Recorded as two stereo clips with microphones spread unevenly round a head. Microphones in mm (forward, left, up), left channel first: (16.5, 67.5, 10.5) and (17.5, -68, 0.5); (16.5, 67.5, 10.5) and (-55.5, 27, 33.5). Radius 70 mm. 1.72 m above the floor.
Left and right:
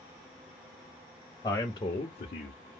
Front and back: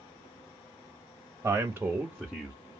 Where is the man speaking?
155° left, 0.9 m; by 2.5 s 110° left, 0.7 m.